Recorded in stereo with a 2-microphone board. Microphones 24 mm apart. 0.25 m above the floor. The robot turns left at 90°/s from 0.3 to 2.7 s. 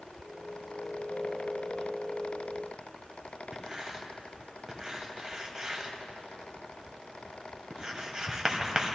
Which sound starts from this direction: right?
Writing, at 3.5 s.